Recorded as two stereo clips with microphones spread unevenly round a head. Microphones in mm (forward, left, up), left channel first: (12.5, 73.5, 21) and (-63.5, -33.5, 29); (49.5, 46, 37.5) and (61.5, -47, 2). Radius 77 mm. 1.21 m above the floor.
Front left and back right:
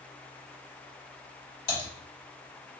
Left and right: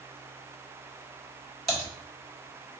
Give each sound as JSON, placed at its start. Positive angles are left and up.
{"t": 1.7, "sound": "typing on a keyboard", "azimuth_deg": 5, "distance_m": 1.9}